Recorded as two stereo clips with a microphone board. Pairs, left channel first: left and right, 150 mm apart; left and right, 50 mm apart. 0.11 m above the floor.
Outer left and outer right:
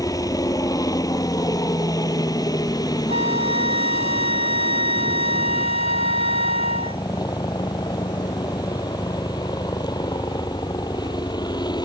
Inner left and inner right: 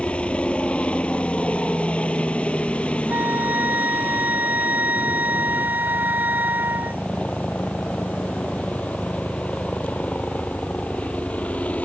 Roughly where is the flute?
Right.